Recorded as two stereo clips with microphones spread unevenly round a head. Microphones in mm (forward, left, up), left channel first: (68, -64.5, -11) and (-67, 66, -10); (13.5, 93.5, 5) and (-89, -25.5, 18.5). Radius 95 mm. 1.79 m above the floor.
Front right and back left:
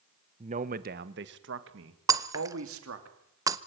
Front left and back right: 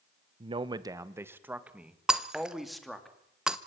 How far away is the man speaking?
About 1.1 m.